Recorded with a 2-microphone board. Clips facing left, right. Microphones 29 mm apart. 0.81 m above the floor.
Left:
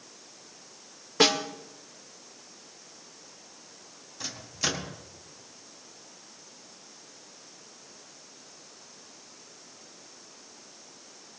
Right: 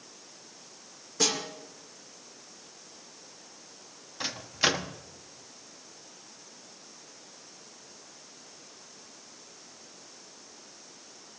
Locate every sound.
1.2 s a snare drum: 40° left (ahead or behind), 1.7 m
4.2 s a microwave: 35° right (ahead or behind), 1.2 m